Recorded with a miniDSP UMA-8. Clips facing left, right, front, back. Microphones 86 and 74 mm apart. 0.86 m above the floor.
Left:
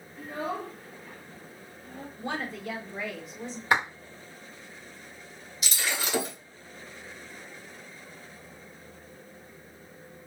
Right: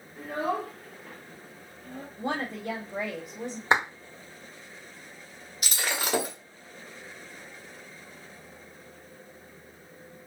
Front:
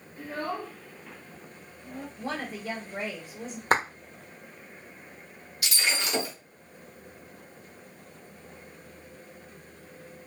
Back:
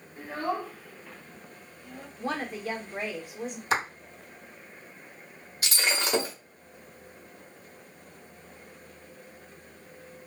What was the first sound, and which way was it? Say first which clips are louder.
A child speaking: right 4 dB, back 2 dB; 120° right.